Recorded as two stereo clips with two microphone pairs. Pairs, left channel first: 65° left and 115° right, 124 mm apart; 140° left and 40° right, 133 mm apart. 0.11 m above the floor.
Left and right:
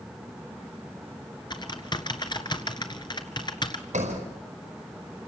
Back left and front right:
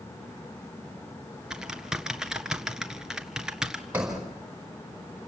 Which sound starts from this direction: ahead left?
Typing on a keyboard, at 1.5 s.